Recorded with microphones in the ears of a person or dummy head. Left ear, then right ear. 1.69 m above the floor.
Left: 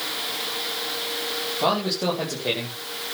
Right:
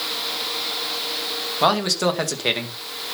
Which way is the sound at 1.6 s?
65° right (ahead or behind).